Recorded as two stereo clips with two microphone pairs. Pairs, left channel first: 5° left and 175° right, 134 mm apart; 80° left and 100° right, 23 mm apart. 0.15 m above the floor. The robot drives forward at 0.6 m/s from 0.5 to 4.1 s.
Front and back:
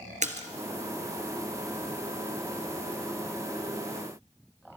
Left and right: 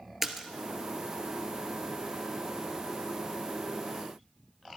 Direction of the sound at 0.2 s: Straight behind.